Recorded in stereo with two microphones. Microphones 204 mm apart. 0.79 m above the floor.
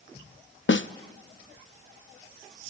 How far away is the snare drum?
About 0.6 m.